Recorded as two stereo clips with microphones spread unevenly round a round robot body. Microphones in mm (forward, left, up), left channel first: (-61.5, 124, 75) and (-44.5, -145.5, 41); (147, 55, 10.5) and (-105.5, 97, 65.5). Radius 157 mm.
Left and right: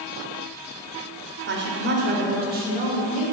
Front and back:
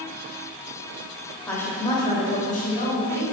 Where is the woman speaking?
80° right, 1.5 m; by 3.2 s 35° right, 1.9 m.